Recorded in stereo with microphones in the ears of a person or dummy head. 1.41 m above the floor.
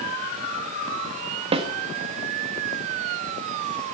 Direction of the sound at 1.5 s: 35° right (ahead or behind).